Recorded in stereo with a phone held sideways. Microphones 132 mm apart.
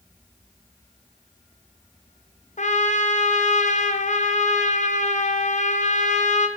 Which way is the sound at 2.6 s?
65° left (ahead or behind).